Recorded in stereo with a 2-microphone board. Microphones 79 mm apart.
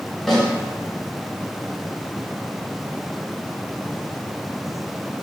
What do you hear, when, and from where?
0.3 s a snare drum: 5° left (ahead or behind), 1.2 m